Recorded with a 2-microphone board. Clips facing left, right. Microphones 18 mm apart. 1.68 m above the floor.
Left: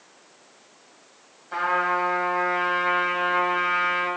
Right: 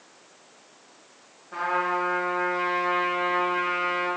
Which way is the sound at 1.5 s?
55° left (ahead or behind).